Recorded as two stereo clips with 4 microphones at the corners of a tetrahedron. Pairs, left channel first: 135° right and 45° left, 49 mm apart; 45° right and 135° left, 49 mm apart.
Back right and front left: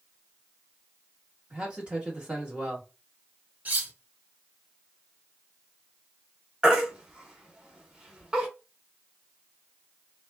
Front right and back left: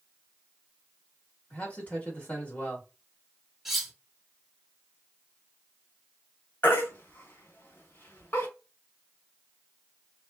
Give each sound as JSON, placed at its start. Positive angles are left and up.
{"t": 1.5, "sound": "a man speaking", "azimuth_deg": -10, "distance_m": 1.3}
{"t": 3.6, "sound": "cutlery clinking", "azimuth_deg": 60, "distance_m": 0.7}
{"t": 6.6, "sound": "a baby crying", "azimuth_deg": -20, "distance_m": 0.9}